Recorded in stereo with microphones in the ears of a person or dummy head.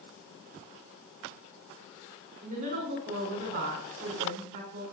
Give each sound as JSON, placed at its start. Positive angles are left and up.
{"t": 2.4, "sound": "a woman speaking", "side_deg": -55, "distance_m": 5.5}